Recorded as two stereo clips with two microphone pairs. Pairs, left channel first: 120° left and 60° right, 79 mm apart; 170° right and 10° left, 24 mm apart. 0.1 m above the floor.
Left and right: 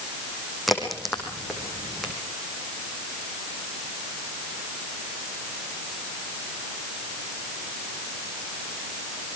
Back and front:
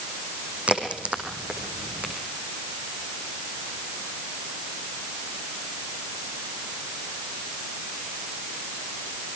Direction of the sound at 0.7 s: 35° left.